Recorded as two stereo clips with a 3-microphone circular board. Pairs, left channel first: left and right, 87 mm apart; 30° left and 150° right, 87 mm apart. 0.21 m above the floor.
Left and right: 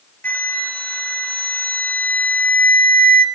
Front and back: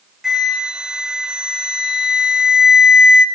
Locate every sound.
0.2 s a flute: 135° left, 0.7 m